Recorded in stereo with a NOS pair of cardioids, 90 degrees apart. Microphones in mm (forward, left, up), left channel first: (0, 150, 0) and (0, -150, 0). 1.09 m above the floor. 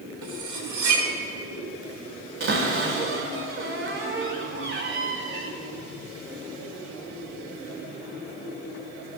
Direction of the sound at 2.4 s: 40° right.